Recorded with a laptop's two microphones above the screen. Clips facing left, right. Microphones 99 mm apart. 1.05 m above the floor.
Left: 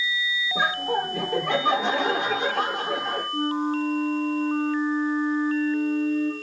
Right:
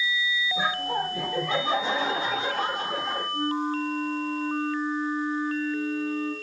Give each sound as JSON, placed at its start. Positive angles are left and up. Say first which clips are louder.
{"t": 0.6, "sound": "laughter", "louder": "left 4 dB", "side_deg": 75, "distance_m": 3.5}
{"t": 3.3, "sound": "a flute", "louder": "left 3 dB", "side_deg": 70, "distance_m": 1.5}